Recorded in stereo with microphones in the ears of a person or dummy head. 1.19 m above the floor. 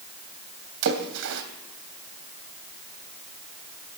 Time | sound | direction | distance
0.8 | a splash | 70° right (ahead or behind) | 2.5 m